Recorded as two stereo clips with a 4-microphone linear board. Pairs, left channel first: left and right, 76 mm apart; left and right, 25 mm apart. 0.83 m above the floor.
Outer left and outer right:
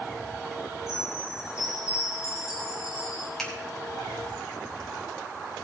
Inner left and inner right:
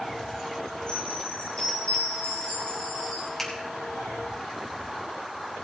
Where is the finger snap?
5° left (ahead or behind), 3.5 m.